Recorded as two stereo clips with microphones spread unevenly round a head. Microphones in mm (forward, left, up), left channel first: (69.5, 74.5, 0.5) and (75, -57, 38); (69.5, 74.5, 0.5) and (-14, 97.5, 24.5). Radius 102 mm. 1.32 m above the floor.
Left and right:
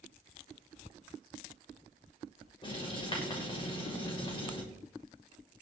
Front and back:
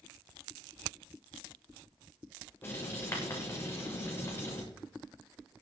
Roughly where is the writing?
Ahead left.